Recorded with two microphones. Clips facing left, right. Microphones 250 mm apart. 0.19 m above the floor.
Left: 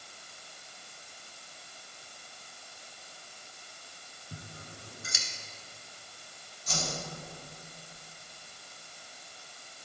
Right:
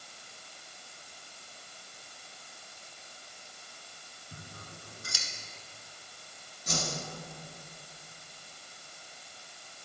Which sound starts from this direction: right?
A whoosh, at 6.7 s.